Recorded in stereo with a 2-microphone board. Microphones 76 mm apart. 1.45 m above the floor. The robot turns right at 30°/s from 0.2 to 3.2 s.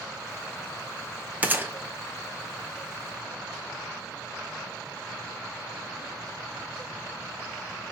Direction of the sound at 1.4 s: 20° right (ahead or behind).